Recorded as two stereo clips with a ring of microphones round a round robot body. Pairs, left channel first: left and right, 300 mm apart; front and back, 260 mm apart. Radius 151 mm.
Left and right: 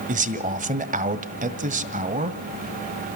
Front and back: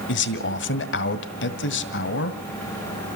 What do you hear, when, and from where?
0.1 s a man speaking: 30° right, 1.5 m